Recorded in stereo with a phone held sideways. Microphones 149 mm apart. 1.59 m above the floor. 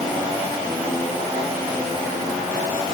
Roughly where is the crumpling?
I don't hear crumpling.